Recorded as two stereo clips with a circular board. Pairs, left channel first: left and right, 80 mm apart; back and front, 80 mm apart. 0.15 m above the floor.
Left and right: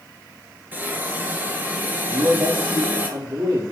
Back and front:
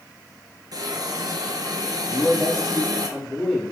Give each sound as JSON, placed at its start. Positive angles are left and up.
{"t": 0.7, "sound": "a hiss", "azimuth_deg": -25, "distance_m": 2.5}
{"t": 2.1, "sound": "a man speaking", "azimuth_deg": -100, "distance_m": 5.5}